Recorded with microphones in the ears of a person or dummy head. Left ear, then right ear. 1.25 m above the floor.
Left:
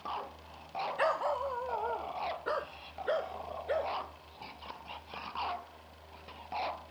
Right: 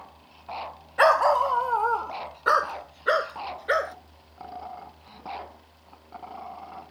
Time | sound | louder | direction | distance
1.0 | a dog barking | right 13 dB | 50° right (ahead or behind) | ?